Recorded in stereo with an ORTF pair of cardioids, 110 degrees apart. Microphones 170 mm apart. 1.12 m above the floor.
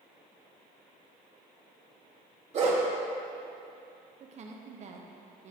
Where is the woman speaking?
45° right, 0.8 m.